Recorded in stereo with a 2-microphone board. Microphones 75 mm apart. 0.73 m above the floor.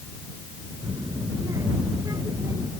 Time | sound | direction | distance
0.8 | a child speaking | 45° right (ahead or behind) | ?